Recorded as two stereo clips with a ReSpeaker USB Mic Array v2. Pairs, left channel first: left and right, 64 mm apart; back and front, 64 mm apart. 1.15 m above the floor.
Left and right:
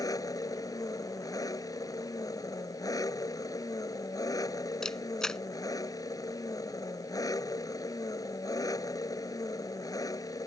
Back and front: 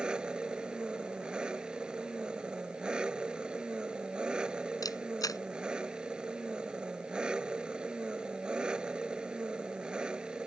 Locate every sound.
0.0 s an engine running: 75° left
4.8 s a camera shutter: 170° left